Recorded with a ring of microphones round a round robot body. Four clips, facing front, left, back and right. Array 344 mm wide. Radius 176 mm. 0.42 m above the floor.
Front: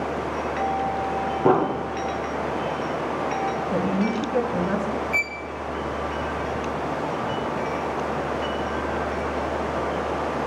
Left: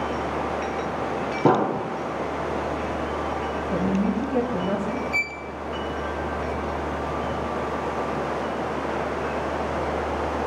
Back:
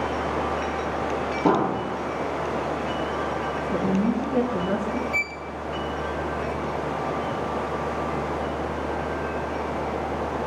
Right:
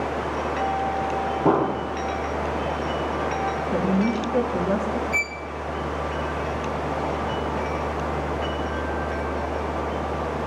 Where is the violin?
5° right, 1.4 m.